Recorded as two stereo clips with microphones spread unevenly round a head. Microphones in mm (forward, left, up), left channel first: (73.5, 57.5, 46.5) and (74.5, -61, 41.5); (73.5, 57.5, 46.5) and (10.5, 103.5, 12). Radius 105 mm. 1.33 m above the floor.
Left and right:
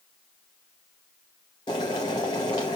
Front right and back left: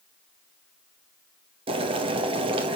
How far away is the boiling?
About 0.7 m.